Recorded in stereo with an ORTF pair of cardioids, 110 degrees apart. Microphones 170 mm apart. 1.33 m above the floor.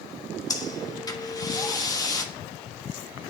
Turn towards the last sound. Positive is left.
turn(degrees=20)